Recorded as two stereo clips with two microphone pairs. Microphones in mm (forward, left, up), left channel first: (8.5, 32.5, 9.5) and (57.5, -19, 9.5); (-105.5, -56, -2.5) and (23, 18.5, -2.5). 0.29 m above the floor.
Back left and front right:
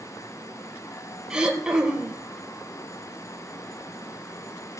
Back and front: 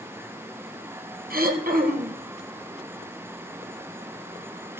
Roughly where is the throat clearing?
Ahead left.